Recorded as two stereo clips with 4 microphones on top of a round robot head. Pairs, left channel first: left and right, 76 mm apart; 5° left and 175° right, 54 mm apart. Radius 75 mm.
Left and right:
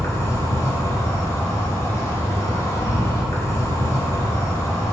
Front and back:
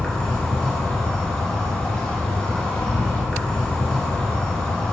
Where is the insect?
75° left, 2.0 m.